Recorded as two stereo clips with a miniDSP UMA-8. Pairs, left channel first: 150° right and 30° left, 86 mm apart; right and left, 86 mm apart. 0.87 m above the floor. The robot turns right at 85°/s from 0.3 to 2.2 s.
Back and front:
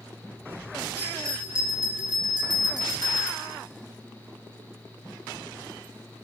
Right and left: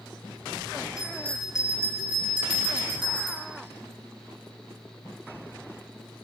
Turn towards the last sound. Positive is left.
turn(degrees=60)